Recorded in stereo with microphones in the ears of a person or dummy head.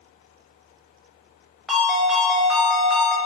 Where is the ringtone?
Centre (ahead or behind), 0.7 m.